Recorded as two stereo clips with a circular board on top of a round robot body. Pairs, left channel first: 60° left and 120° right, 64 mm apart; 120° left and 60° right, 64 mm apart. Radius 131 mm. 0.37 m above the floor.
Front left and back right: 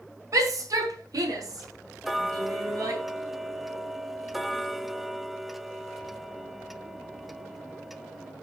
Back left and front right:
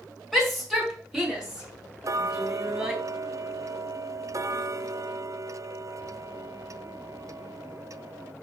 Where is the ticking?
35° right, 0.7 m.